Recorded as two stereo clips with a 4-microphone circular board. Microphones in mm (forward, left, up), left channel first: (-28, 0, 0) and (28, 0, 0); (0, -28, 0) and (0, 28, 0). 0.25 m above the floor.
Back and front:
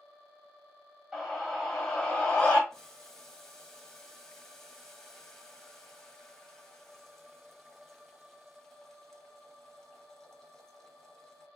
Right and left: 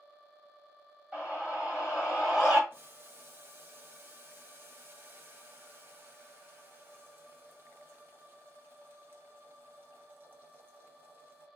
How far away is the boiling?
About 0.7 m.